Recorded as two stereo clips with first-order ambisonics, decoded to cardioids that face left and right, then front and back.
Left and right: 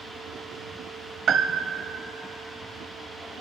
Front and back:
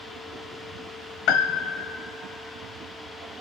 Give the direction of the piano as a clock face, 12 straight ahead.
1 o'clock.